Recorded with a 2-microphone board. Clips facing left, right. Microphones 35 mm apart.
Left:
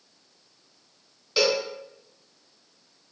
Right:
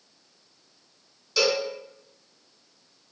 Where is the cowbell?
25° left (ahead or behind), 0.8 m.